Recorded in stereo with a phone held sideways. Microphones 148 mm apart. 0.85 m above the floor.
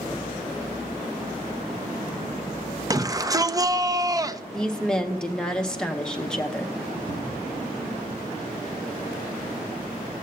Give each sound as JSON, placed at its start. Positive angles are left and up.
{"t": 2.9, "sound": "a shout", "side_deg": -25, "distance_m": 0.6}
{"t": 4.5, "sound": "a woman speaking", "side_deg": 5, "distance_m": 0.8}
{"t": 7.1, "sound": "a cupboard door", "side_deg": -75, "distance_m": 2.5}